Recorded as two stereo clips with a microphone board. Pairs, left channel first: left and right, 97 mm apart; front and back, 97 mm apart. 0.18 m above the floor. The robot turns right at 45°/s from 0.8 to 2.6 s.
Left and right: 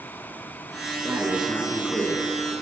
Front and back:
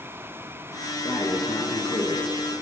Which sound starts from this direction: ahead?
Breathing, at 1.0 s.